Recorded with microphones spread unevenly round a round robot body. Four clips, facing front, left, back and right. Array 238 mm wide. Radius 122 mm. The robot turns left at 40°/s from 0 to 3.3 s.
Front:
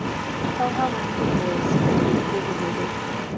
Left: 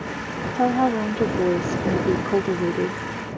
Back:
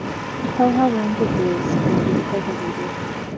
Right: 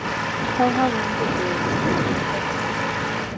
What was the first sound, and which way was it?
A woman speaking, 175° right.